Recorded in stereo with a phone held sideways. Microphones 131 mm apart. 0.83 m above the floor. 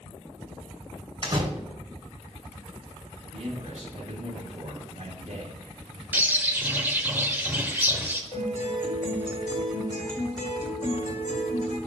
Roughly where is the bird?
Centre.